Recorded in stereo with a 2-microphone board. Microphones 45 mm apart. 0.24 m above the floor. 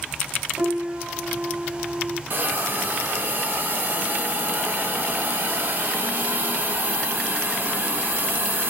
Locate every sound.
0.6 s a piano: 30° right (ahead or behind), 0.7 m
2.3 s a hiss: 50° right (ahead or behind), 0.7 m